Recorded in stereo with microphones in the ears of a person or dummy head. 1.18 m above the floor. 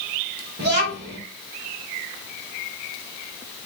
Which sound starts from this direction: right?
A child speaking, at 0.6 s.